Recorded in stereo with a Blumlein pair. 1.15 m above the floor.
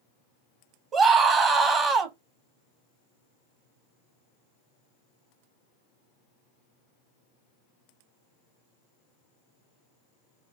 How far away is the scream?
About 1.2 m.